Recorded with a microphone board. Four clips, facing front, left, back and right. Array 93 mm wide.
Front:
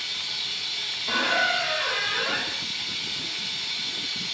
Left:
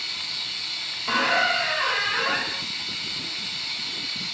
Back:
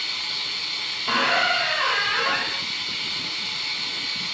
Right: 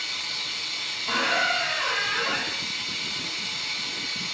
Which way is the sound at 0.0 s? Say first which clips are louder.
Right 2 dB, back 3 dB; 165° right.